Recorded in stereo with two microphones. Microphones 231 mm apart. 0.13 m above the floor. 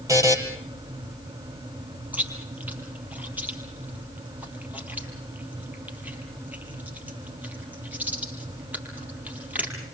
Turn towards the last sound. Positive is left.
turn(degrees=-5)  # may be behind; listen again after turning